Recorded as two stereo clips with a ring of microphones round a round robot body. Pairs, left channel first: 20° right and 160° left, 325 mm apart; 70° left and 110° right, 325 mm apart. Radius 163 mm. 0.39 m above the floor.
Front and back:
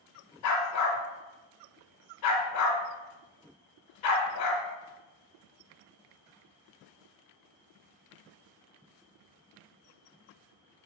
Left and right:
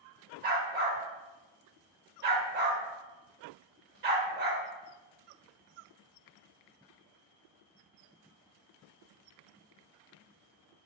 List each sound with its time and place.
0.4 s a dog barking: 55° right, 0.5 m